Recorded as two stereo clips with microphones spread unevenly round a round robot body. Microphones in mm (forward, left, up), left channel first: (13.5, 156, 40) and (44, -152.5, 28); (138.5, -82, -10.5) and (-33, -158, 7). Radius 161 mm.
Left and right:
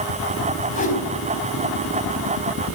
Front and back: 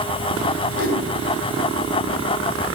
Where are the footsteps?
No footsteps in this recording.